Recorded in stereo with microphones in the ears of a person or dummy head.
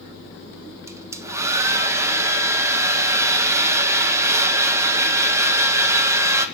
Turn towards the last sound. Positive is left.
turn(degrees=-15)  # may be behind; listen again after turning